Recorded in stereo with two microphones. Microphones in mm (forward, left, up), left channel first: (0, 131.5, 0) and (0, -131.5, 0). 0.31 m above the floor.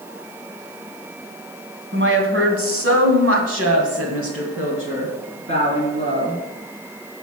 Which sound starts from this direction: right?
A woman speaking, at 1.9 s.